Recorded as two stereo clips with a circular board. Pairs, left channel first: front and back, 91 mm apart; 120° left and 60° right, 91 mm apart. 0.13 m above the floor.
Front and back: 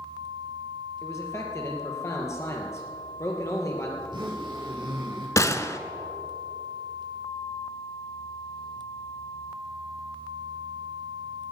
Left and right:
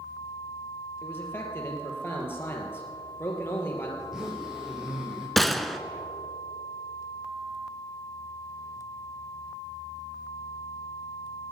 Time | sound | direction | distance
1.0 | a man speaking | 55° left | 3 m
4.0 | a zipper | 145° right | 5 m
5.4 | a gunshot | 30° left | 0.6 m